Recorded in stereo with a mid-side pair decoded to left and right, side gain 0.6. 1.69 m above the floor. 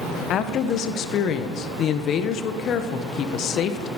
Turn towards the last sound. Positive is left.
turn(degrees=50)